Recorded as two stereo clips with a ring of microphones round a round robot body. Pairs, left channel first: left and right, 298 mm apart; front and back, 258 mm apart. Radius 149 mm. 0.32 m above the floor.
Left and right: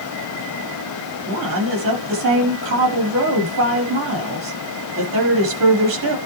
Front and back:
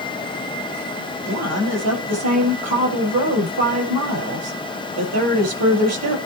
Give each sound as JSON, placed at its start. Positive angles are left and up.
{"t": 1.3, "sound": "a woman speaking", "azimuth_deg": -140, "distance_m": 7.0}